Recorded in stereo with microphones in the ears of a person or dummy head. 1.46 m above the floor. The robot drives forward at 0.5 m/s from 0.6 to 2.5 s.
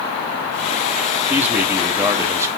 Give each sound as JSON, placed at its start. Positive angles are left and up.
{"t": 1.3, "sound": "a man speaking", "side_deg": -10, "distance_m": 1.5}